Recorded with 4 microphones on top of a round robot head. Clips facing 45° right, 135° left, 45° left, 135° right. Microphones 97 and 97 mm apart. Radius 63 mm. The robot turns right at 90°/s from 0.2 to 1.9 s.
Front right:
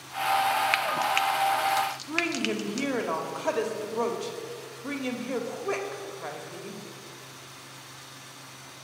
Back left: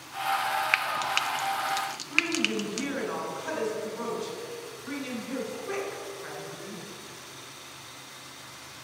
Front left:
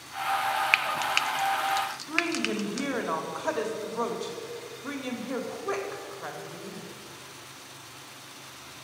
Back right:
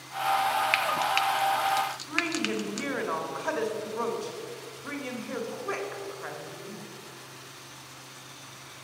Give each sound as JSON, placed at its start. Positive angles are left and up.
{"t": 0.7, "sound": "frying", "azimuth_deg": 35, "distance_m": 0.5}
{"t": 2.1, "sound": "a woman speaking", "azimuth_deg": -35, "distance_m": 2.0}